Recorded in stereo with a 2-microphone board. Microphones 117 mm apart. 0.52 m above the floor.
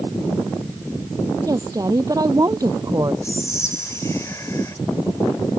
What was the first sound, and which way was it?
A woman speaking, 30° right (ahead or behind).